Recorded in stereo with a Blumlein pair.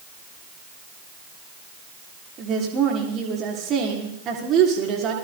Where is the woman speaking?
30° right, 6 m.